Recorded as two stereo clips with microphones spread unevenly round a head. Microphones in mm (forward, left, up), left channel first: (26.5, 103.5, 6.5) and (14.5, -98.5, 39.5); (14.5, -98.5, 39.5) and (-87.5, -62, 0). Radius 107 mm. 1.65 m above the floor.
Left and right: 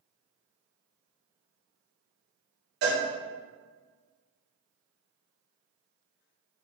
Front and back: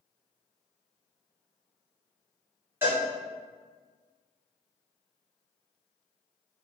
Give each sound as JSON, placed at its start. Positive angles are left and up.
{"t": 2.8, "sound": "a cowbell", "azimuth_deg": -120, "distance_m": 1.9}